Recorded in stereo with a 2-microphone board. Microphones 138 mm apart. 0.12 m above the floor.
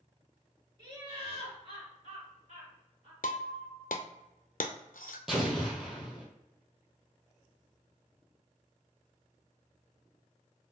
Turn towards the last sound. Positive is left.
turn(degrees=0)  # may be behind; listen again after turning